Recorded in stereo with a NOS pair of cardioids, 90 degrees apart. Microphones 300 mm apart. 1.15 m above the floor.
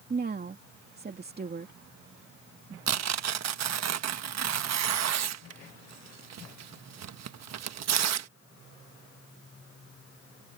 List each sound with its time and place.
0.1 s a woman speaking: 35° right
2.9 s tearing paper: 60° right